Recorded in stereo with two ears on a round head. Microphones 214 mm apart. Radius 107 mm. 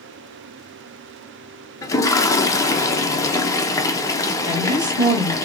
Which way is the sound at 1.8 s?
15° left (ahead or behind).